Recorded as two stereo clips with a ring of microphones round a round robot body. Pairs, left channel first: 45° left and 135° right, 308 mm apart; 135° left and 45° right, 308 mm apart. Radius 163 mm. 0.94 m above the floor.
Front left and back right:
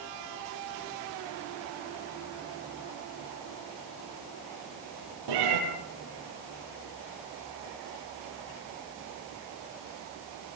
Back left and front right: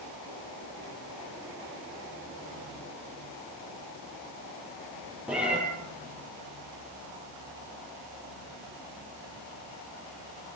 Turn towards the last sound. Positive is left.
turn(degrees=-130)